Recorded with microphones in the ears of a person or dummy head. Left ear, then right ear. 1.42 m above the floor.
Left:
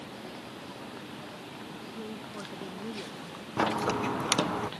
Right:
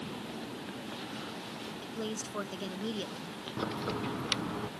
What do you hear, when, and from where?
1.8 s a woman speaking: 80° right; by 3.4 s 85° right
3.6 s a crack: 30° left (ahead or behind)